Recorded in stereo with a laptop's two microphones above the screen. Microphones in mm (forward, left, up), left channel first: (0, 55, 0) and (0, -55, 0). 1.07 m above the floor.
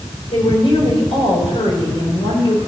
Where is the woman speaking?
50° left (ahead or behind), 4.5 m.